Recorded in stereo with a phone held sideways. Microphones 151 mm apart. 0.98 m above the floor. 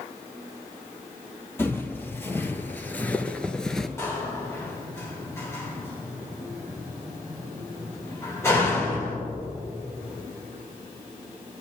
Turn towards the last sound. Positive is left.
turn(degrees=20)  # may be behind; listen again after turning